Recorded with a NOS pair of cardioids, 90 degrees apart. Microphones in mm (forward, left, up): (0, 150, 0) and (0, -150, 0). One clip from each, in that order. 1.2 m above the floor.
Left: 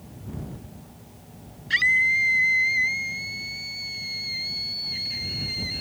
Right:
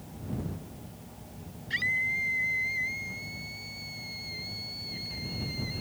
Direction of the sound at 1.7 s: 65° left.